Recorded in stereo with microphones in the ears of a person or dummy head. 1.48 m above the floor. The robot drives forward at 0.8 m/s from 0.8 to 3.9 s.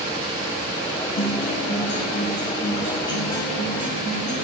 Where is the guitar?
60° left (ahead or behind), 1.4 m; by 4.3 s 25° left (ahead or behind), 3 m.